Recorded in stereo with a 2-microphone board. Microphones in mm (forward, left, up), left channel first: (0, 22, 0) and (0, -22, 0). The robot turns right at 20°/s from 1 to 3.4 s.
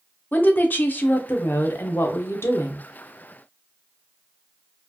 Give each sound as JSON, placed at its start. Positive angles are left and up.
{"t": 0.3, "sound": "a woman speaking", "azimuth_deg": 50, "distance_m": 0.8}